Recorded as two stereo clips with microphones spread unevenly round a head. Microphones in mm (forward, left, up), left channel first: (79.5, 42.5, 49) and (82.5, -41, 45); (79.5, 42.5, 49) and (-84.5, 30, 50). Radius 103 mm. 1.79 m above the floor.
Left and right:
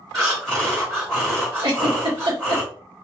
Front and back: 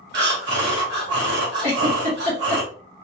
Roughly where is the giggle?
Behind right.